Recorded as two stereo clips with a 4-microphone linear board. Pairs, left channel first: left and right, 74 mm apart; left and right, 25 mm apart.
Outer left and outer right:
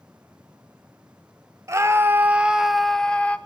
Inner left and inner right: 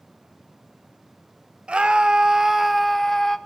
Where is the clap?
I don't hear a clap.